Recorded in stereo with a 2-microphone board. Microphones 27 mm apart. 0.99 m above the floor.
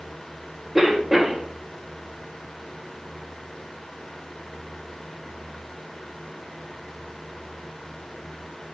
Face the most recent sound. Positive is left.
turn(degrees=0)  # may be behind; listen again after turning